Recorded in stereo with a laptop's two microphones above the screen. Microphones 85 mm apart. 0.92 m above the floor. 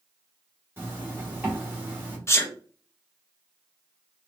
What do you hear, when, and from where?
0.8 s a zipper: 25° right (ahead or behind), 1.6 m
2.3 s a sneeze: 30° left (ahead or behind), 0.9 m